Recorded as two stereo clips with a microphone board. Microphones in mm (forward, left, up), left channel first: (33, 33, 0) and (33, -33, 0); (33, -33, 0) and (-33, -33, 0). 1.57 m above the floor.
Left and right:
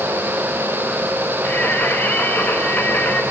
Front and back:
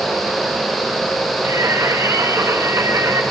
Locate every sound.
1.4 s singing: 150° left, 2.5 m